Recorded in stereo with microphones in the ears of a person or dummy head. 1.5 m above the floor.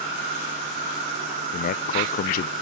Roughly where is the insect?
Right.